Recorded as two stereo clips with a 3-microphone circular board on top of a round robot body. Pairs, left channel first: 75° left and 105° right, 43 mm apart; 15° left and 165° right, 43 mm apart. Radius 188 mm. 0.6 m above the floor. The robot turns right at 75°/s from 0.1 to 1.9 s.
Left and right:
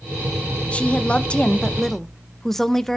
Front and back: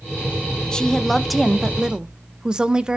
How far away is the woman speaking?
About 1.2 m.